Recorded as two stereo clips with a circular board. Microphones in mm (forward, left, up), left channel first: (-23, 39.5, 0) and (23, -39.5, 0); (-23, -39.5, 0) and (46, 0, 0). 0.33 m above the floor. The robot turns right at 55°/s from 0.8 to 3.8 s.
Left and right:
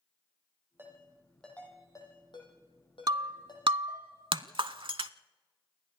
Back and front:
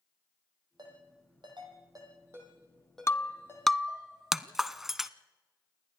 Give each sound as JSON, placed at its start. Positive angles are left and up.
{"t": 0.8, "sound": "a ringtone", "azimuth_deg": 5, "distance_m": 5.5}
{"t": 3.1, "sound": "breaking glass", "azimuth_deg": -95, "distance_m": 0.6}